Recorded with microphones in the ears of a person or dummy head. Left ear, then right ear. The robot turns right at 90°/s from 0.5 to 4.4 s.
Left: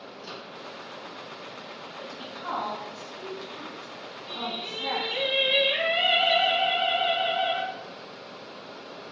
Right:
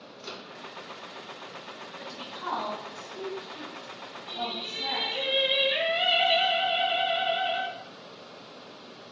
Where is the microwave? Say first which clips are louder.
Right 1 dB; 30° right (ahead or behind), 1.0 m.